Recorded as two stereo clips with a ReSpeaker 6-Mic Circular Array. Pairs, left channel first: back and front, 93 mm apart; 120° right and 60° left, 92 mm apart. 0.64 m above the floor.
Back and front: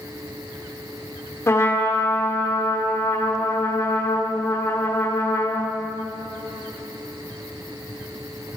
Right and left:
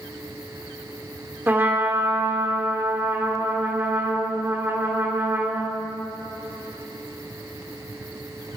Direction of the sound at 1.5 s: 125° left.